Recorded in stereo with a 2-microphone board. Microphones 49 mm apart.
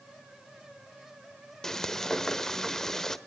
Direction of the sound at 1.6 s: 10° left (ahead or behind).